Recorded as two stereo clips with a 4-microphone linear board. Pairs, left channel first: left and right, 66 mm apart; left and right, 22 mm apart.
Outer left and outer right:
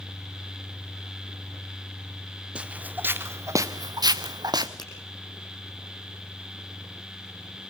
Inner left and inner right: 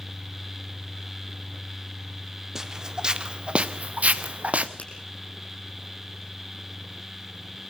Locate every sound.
2.5 s footsteps: 15° right (ahead or behind), 1.8 m; by 4.7 s 75° right (ahead or behind), 1.4 m
4.8 s a finger snap: 80° left, 6 m